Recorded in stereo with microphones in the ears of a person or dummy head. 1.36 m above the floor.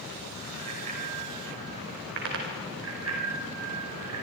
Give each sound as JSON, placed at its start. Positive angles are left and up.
{"t": 0.6, "sound": "a bicycle bell", "side_deg": -40, "distance_m": 5.0}